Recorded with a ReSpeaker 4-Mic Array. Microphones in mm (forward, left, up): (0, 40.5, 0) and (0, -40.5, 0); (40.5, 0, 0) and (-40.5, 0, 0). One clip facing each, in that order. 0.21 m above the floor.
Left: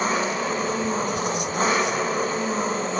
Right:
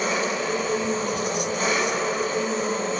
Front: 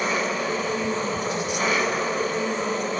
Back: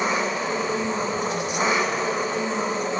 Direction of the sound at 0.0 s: 120° left.